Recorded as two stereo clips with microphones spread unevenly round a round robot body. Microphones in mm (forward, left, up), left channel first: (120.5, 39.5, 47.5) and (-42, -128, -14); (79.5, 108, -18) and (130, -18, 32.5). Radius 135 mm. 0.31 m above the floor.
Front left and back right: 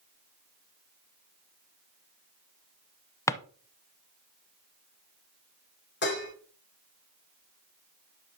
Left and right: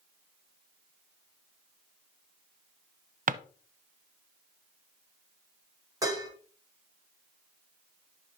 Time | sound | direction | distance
3.3 | a drawer | 35° right | 0.5 m
6.0 | dishes clattering | straight ahead | 3.5 m